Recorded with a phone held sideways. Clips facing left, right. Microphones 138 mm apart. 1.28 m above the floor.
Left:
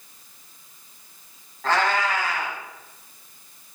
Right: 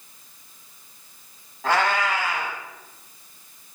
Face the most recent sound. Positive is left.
turn(degrees=-10)  # may be behind; listen again after turning